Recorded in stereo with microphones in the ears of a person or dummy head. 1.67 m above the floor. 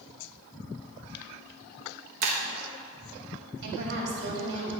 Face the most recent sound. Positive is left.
turn(degrees=-70)  # may be behind; listen again after turning